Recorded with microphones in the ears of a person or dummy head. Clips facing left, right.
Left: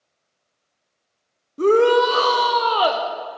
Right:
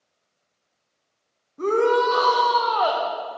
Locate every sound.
1.6 s a shout: 45° left (ahead or behind), 0.6 m